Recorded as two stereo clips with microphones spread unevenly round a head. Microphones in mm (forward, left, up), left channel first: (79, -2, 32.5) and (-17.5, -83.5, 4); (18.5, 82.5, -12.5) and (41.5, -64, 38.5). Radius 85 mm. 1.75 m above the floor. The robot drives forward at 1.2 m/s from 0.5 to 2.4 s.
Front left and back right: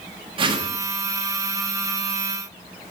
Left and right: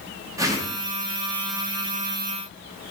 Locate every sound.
0.4 s a whoosh: 100° right, 1.4 m; by 0.8 s 120° right, 1.5 m